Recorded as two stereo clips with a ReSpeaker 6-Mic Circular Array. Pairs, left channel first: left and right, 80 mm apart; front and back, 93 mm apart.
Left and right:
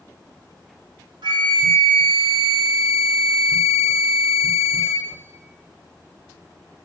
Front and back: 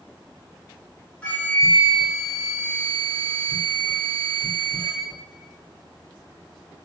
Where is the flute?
75° right, 0.9 m.